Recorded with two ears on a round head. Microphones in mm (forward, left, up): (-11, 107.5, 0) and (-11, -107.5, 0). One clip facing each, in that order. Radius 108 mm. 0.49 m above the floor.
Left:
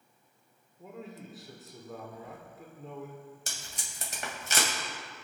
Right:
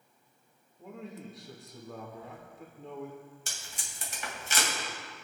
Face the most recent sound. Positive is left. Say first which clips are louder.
# left 1 dB
turn(degrees=40)  # may be behind; listen again after turning